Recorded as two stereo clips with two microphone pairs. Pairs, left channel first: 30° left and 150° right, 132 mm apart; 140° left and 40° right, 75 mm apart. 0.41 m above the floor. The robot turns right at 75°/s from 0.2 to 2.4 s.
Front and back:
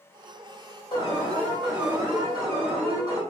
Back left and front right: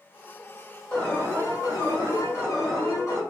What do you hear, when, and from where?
0.9 s an alarm: 70° left, 1.5 m; by 3.2 s 175° right, 1.5 m